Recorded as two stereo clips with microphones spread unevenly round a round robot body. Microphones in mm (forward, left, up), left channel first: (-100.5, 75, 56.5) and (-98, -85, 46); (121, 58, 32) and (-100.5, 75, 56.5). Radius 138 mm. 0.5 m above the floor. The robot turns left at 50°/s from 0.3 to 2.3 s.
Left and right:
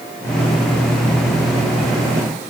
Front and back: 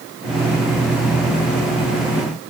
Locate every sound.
Only background noise.